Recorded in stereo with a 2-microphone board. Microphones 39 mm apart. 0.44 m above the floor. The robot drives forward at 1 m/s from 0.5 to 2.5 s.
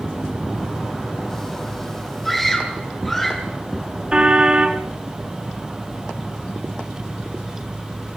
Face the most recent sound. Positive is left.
turn(degrees=-25)  # may be behind; listen again after turning